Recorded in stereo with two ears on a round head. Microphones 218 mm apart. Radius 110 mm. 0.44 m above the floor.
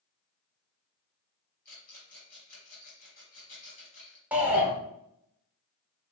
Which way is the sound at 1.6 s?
35° left (ahead or behind).